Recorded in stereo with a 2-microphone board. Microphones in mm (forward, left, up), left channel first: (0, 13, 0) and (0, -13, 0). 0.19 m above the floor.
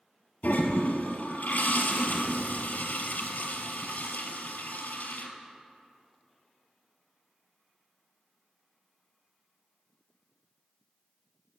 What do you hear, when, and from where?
0.4 s a toilet flushing: 80° left, 0.8 m